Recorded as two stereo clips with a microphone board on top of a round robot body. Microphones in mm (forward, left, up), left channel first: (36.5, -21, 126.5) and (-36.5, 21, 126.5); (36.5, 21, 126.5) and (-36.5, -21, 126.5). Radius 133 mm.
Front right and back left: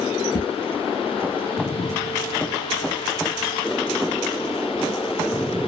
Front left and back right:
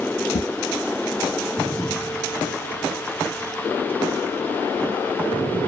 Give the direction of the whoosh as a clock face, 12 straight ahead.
12 o'clock.